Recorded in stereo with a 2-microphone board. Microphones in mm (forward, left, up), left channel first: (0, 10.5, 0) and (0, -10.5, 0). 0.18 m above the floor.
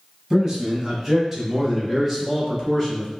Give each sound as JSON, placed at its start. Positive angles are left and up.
{"t": 0.3, "sound": "a man speaking", "side_deg": -20, "distance_m": 1.4}